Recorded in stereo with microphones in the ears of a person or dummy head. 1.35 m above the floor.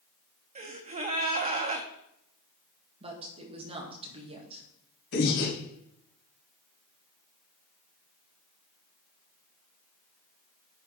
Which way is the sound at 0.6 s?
35° right (ahead or behind).